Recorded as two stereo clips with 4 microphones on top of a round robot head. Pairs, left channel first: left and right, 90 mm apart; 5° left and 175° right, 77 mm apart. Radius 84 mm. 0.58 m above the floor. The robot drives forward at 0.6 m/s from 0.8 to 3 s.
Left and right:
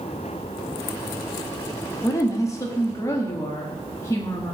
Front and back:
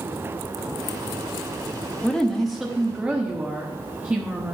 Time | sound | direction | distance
2.0 | a woman speaking | 75° left | 1.2 m